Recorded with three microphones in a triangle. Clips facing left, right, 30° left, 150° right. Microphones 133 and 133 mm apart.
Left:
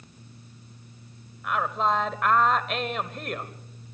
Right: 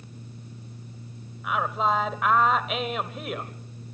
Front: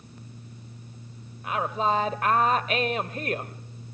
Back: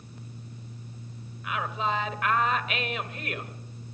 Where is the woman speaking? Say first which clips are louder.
Even, front 4 dB; 5° right, 1.3 m.